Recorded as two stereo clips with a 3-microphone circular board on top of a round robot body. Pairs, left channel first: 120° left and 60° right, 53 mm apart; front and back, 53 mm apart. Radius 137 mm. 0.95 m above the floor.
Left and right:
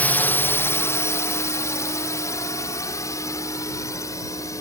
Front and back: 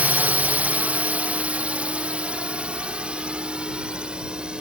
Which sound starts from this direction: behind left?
A drone, at 0.0 s.